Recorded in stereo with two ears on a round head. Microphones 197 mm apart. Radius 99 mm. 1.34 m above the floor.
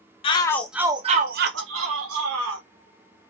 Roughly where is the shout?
Left.